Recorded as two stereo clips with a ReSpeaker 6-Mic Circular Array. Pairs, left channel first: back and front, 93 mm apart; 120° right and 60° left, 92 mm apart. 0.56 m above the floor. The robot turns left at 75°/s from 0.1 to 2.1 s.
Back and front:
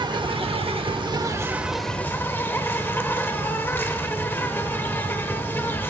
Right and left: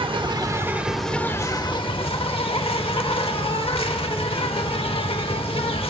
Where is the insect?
35° left, 0.7 m; by 5.9 s 115° right, 0.7 m.